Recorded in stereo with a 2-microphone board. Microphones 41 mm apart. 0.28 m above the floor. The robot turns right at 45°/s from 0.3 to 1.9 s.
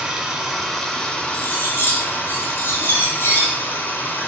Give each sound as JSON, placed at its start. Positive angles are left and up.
{"t": 0.0, "sound": "running water", "azimuth_deg": -15, "distance_m": 1.6}
{"t": 1.3, "sound": "cutlery clinking", "side_deg": 75, "distance_m": 3.0}